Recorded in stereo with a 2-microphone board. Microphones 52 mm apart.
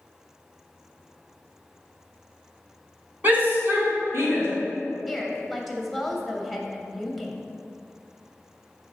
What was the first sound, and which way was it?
A shout, 40° right (ahead or behind).